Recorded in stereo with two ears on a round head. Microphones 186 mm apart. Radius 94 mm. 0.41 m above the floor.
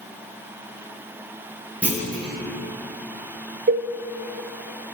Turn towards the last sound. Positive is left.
turn(degrees=-55)  # may be behind; listen again after turning